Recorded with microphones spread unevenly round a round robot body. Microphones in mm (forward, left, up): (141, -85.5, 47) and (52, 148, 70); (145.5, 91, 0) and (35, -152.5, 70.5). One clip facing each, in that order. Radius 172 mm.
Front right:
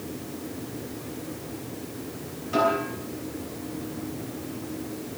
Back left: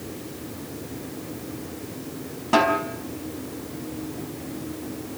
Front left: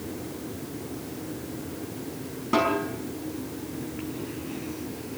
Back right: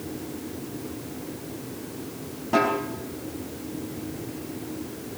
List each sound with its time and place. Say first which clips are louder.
2.5 s a snare drum: back left 3 dB, back right 1 dB; 145° left, 4.5 m